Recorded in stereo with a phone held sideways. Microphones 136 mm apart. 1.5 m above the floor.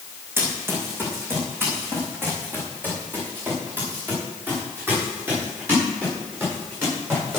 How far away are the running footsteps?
About 5 m.